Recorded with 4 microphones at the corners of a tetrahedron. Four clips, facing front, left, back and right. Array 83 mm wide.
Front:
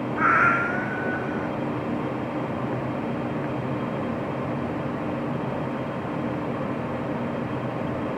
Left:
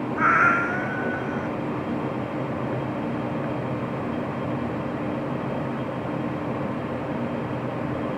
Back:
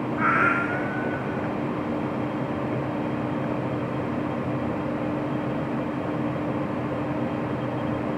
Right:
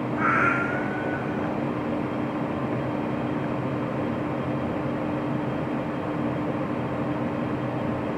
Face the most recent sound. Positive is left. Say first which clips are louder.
# left 4 dB, front 2 dB
turn(degrees=60)